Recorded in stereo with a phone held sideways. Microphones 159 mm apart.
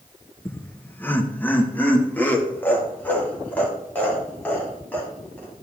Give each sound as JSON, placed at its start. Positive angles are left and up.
{"t": 0.5, "sound": "laughter", "side_deg": 10, "distance_m": 0.7}